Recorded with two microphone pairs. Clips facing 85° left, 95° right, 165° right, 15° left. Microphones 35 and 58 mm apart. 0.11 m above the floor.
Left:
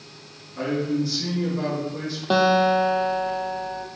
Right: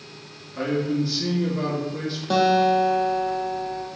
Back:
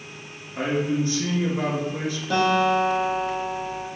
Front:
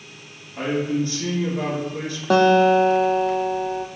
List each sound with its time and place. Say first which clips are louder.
0.6 s a man speaking: even, front 1 dB; 145° right, 1.5 m
2.3 s a guitar: even, front 6 dB; 25° left, 0.5 m